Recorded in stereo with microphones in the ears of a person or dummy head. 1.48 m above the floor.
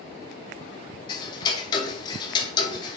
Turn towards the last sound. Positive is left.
turn(degrees=30)  # may be behind; listen again after turning